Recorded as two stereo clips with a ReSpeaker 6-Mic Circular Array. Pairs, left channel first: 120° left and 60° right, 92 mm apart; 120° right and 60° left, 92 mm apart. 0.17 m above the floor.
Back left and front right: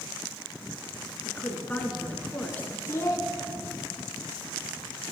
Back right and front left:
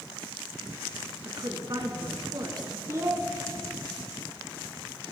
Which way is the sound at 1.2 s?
55° left.